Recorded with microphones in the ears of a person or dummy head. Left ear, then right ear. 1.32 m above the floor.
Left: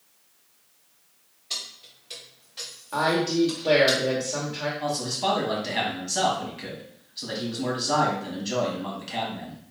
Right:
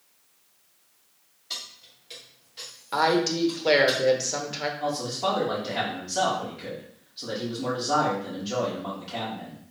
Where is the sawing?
I don't hear sawing.